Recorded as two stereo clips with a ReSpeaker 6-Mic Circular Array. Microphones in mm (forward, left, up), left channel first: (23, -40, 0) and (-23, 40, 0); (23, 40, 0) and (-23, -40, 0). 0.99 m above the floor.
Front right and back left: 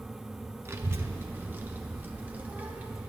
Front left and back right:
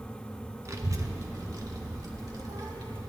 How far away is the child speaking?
About 1.2 m.